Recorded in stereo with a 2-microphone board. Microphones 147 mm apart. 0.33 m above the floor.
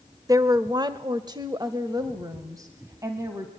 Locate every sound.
0.3 s a woman speaking: 25° right (ahead or behind), 0.9 m; by 3.5 s 20° right (ahead or behind), 2 m